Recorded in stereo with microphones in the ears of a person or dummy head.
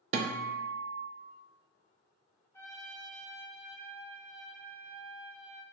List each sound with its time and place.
0.1 s a guitar: 35° right (ahead or behind), 0.5 m
2.5 s a trumpet: 15° left (ahead or behind), 0.9 m